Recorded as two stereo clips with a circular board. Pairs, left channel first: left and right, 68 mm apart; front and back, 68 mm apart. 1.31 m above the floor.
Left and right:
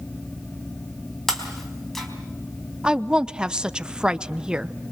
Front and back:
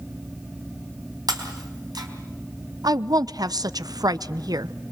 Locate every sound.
1.3 s breaking glass: 175° left, 4 m
2.8 s a woman speaking: 165° right, 0.8 m